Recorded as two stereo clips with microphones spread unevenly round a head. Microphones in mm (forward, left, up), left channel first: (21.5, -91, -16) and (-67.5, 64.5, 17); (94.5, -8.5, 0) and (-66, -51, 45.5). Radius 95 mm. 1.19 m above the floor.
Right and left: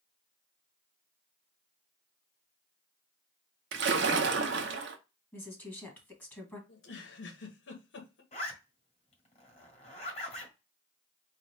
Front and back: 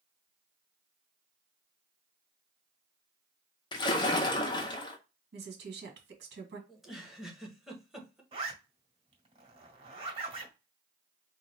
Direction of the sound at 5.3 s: 135° right.